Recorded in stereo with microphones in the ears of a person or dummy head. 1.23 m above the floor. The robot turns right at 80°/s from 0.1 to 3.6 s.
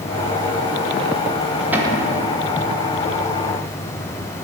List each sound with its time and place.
1.7 s a cupboard door: 175° right, 1.6 m; by 2.1 s 140° right, 1.6 m